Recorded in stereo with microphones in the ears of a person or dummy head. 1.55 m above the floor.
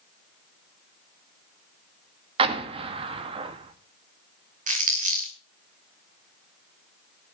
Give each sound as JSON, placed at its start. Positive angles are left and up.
{"t": 2.4, "sound": "an explosion", "side_deg": -30, "distance_m": 1.6}
{"t": 4.7, "sound": "crumpling", "side_deg": -45, "distance_m": 2.5}